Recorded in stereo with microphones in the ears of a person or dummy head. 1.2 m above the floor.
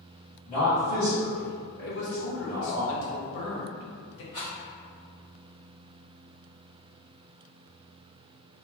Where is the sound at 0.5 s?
30° left (ahead or behind), 1.1 m.